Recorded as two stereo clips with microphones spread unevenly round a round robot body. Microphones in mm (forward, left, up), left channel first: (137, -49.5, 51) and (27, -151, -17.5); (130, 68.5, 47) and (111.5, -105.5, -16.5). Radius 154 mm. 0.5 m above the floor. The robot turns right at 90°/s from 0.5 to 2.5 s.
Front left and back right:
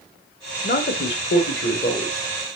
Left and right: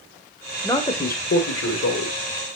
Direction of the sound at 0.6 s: Straight ahead.